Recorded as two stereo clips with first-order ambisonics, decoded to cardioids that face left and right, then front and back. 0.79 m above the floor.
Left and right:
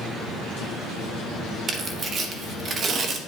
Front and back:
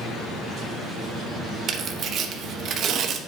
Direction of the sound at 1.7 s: 140° right.